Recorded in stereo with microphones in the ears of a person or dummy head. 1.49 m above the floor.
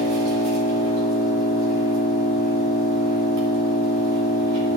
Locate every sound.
0.0 s an engine running: 70° right (ahead or behind), 2 m